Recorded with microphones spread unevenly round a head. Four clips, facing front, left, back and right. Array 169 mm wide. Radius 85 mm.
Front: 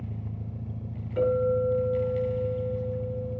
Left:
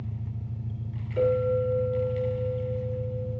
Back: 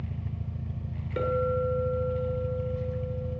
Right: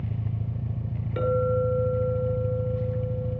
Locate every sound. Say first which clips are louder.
0.0 s an engine running: right 5 dB, even; 80° right, 0.9 m
1.2 s a clink: even, front 3 dB; 140° right, 9 m